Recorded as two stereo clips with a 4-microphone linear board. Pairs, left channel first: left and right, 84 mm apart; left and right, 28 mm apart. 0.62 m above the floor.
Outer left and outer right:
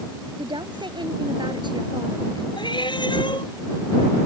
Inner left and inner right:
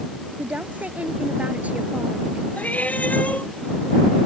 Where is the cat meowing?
65° left (ahead or behind).